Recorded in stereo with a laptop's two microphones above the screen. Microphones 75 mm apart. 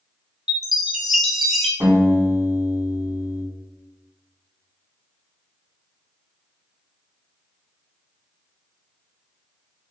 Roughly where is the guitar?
Right.